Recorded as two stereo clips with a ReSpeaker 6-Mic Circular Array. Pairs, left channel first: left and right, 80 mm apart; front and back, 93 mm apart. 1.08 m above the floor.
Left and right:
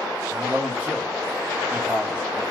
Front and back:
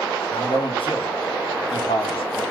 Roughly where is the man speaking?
Ahead.